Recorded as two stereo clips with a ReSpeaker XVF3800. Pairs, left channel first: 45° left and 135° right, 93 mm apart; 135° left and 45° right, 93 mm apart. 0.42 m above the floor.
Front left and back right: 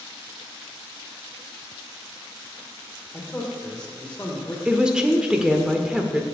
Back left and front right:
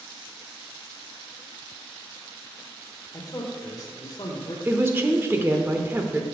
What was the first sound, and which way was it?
A man speaking, 115° left.